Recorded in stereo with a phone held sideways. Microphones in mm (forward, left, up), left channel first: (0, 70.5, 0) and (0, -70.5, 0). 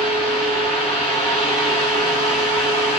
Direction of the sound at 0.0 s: Centre (ahead or behind).